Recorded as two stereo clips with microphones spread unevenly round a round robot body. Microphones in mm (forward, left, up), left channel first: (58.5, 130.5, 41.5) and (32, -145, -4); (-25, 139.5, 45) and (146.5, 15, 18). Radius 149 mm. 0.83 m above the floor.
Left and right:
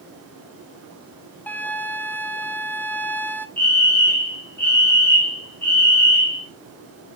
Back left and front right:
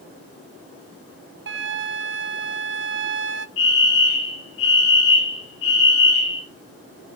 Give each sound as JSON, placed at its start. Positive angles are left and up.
{"t": 1.5, "sound": "a flute", "azimuth_deg": 0, "distance_m": 0.6}
{"t": 3.6, "sound": "a fire alarm", "azimuth_deg": 175, "distance_m": 3.0}